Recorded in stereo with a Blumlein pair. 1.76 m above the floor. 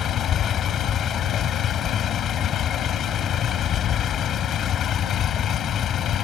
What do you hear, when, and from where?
0.0 s a vehicle: 25° left